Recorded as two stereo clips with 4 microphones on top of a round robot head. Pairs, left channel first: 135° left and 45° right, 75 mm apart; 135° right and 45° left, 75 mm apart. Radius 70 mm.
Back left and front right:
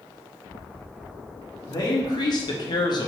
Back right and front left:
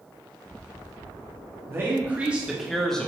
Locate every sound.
1.7 s a man speaking: 100° left, 1.4 m; by 3.1 s 150° left, 1.2 m